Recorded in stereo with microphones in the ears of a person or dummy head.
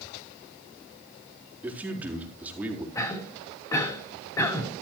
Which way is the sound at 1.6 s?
5° right (ahead or behind).